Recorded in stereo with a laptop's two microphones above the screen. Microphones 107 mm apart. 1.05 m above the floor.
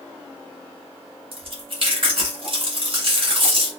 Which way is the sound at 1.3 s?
55° right (ahead or behind).